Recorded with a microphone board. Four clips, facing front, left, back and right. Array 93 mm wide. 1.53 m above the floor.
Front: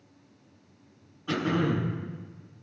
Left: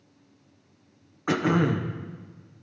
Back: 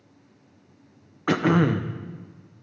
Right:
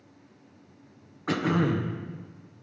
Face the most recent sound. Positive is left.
turn(degrees=165)